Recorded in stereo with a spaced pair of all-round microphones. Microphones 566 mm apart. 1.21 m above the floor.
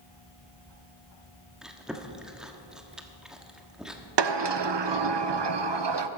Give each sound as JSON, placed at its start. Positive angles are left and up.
{"t": 1.6, "sound": "chewing", "side_deg": 0, "distance_m": 1.2}
{"t": 4.2, "sound": "a sliding door", "side_deg": -50, "distance_m": 0.6}